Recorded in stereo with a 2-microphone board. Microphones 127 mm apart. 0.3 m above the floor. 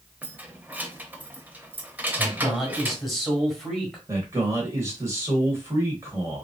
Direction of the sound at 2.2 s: Centre (ahead or behind).